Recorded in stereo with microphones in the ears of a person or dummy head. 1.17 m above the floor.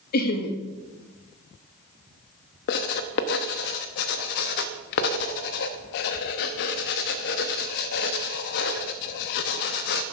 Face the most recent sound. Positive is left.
turn(degrees=55)  # may be behind; listen again after turning